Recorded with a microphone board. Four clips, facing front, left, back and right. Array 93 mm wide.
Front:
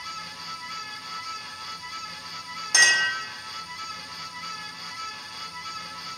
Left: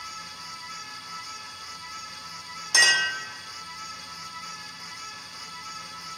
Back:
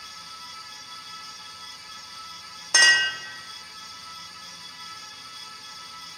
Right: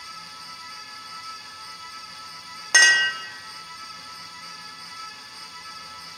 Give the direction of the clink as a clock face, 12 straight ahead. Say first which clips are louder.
Right 5 dB, back 2 dB; 4 o'clock.